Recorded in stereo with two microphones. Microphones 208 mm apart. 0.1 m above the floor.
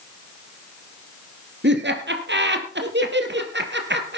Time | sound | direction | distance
1.6 | laughter | 60° right (ahead or behind) | 3 m